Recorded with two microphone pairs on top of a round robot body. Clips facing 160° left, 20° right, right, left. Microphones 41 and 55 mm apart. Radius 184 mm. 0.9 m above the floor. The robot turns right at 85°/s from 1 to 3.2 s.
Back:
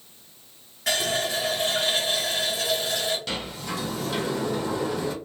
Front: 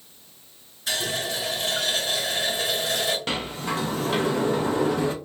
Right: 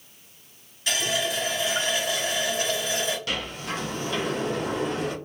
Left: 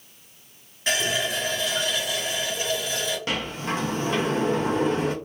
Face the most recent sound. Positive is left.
turn(degrees=35)